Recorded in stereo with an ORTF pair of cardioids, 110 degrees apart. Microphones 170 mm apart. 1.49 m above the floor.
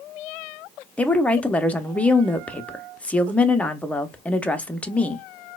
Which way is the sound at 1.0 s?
10° left.